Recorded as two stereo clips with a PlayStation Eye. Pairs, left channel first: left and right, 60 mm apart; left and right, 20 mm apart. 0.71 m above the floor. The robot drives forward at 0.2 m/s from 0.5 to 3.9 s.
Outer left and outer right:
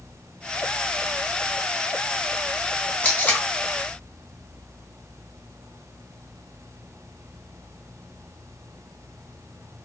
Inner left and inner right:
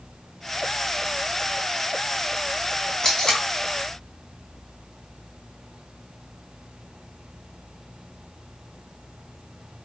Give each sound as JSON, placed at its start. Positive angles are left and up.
{"t": 3.0, "sound": "tape being pulled", "side_deg": 30, "distance_m": 1.0}